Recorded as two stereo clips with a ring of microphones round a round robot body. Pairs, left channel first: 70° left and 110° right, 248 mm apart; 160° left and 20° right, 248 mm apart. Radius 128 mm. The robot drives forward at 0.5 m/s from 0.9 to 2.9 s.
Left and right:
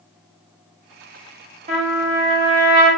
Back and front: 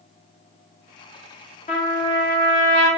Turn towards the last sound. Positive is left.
turn(degrees=-165)